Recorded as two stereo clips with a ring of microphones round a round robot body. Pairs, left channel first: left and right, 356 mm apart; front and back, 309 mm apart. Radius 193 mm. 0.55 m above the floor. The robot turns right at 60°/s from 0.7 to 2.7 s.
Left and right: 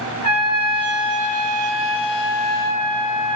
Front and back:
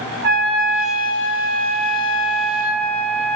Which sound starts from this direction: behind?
A trumpet, at 0.2 s.